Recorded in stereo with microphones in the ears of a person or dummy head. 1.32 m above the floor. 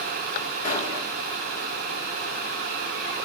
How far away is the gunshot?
About 3.5 m.